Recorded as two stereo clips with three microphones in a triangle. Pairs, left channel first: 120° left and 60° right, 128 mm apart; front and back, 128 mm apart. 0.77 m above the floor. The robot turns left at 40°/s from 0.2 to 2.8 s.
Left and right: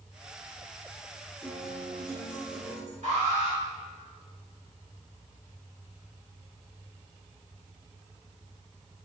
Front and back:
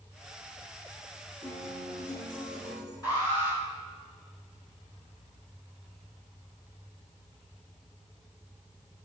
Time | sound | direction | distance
1.4 | a guitar | 35° left | 4 m
3.0 | an alarm | 60° right | 4.5 m